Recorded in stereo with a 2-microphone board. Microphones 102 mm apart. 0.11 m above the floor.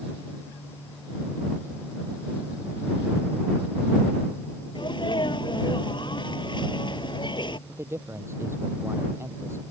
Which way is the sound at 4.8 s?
50° left (ahead or behind).